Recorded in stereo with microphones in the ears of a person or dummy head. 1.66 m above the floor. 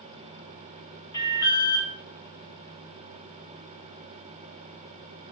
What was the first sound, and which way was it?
An alarm, 10° left (ahead or behind).